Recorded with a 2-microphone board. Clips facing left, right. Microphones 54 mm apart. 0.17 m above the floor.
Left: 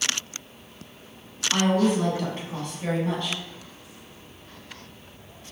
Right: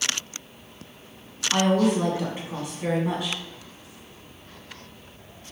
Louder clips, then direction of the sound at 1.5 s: Right 1 dB; 10° right (ahead or behind).